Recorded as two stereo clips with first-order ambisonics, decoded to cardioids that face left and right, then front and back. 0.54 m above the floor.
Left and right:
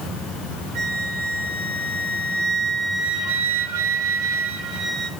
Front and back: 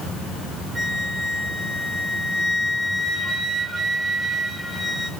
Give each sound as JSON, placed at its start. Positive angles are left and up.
{"t": 0.8, "sound": "a flute", "azimuth_deg": -100, "distance_m": 1.5}